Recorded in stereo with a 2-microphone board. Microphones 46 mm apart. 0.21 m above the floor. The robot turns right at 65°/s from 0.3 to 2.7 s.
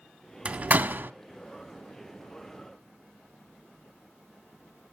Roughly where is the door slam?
Right.